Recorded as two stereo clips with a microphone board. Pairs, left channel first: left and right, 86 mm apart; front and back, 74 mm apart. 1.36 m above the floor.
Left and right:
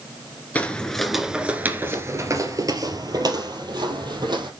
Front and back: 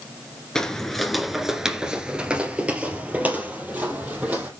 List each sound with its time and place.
0.6 s footsteps: 70° left, 1.3 m; by 4.5 s 115° right, 3 m